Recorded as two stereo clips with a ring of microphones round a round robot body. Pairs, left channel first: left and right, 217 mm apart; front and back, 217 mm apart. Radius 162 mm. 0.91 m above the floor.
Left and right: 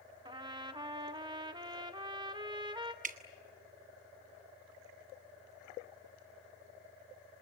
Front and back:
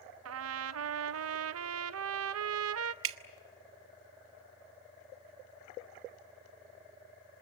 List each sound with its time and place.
0.2 s a trumpet: 165° right, 0.5 m
3.0 s dripping: 150° right, 0.6 m